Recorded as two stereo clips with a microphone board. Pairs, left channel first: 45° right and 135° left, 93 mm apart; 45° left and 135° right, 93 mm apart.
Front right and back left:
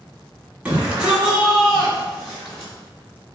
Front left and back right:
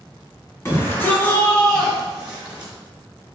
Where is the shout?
70° left, 1.3 m; by 2.7 s 95° right, 1.2 m.